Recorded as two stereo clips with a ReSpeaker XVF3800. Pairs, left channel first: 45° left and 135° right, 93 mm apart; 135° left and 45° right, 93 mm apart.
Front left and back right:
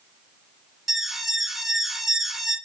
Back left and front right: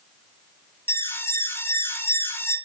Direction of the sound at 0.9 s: 140° left.